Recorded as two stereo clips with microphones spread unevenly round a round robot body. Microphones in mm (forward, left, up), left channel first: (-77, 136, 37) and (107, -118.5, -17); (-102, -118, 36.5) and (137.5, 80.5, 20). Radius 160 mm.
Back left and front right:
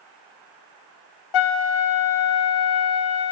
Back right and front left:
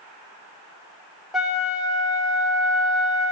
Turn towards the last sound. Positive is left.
turn(degrees=130)